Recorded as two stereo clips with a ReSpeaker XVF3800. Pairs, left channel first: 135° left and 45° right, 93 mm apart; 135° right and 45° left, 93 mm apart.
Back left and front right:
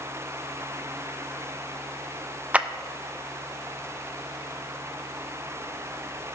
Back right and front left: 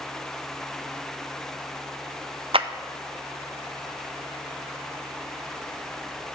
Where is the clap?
30° left, 0.5 m.